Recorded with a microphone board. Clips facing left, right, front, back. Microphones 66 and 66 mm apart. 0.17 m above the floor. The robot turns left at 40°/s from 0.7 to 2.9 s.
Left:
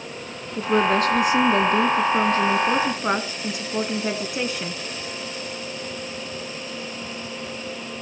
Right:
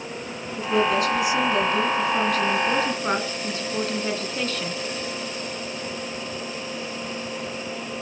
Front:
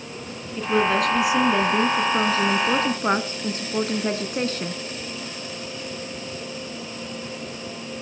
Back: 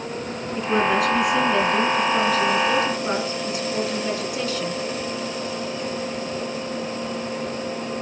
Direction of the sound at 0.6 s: 105° left.